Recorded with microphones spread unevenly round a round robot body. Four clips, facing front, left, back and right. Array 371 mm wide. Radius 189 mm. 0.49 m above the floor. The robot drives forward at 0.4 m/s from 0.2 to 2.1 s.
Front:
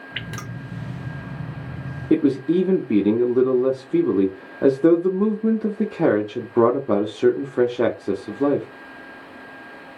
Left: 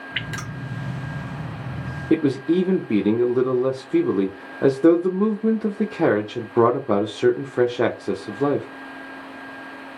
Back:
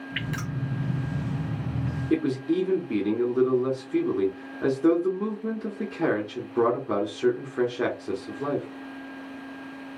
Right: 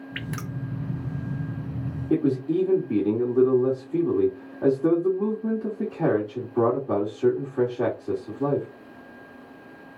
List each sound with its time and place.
0.1 s dripping: straight ahead, 0.8 m
2.1 s a man speaking: 45° left, 0.9 m